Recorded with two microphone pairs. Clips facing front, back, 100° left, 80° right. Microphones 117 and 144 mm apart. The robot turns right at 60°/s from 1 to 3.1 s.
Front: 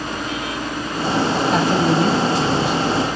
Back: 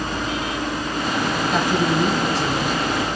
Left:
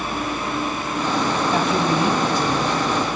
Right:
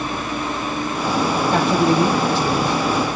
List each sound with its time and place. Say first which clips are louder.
1.5 s a man speaking: front 2 dB, right 5 dB; 45° right, 5 m; by 3.2 s 55° left, 5 m